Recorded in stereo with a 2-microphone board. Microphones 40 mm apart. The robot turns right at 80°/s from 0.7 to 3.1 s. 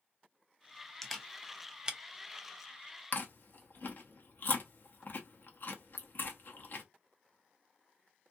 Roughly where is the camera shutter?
Centre.